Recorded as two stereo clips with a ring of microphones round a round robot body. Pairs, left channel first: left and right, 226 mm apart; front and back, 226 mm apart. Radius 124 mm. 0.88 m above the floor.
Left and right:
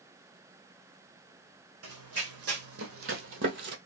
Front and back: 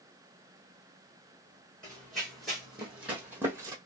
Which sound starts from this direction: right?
Running footsteps, at 1.8 s.